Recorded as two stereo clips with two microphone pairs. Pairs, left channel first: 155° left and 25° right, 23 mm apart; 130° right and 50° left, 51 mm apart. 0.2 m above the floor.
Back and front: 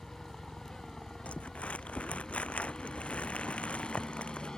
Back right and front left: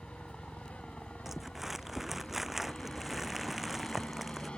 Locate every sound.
0.0 s a helicopter: straight behind; by 4.6 s 175° left
1.2 s crumpling: 135° left